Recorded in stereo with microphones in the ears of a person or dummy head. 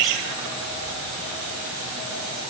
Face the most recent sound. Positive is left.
No sound to turn to.